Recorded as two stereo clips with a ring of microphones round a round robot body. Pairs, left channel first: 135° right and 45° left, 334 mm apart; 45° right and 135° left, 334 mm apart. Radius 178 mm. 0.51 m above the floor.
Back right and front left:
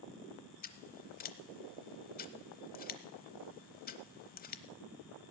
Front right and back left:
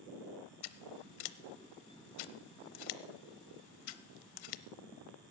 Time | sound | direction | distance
0.6 | scissors | 70° right | 0.8 m